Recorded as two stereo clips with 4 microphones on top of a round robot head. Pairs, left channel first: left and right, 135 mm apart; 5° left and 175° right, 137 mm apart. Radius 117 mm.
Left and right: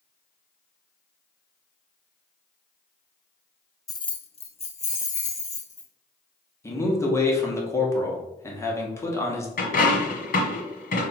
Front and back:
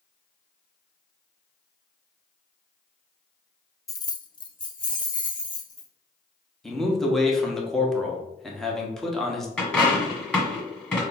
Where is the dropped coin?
85° left, 1.7 m.